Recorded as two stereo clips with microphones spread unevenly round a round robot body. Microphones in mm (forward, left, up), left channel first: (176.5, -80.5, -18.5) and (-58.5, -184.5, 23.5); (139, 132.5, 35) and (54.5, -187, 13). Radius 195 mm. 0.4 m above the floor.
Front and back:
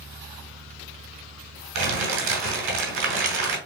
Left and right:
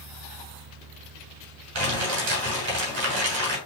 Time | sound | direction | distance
1.8 | crumpling | 160° right | 2.5 m